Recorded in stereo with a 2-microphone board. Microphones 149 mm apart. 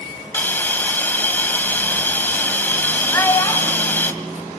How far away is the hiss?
About 2 m.